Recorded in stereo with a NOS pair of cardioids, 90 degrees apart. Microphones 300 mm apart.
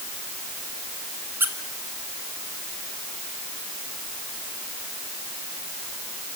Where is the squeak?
5° right, 2.5 m.